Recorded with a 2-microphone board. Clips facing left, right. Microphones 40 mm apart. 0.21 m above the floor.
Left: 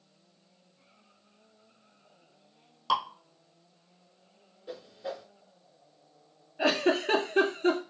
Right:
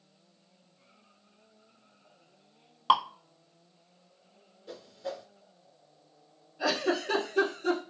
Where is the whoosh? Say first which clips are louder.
Left 1 dB; 15° left (ahead or behind), 0.8 m.